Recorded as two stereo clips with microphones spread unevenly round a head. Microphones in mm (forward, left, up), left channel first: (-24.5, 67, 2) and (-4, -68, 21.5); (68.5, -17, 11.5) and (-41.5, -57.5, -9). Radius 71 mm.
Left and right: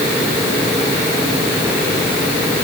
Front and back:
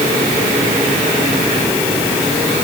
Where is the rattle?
I don't hear a rattle.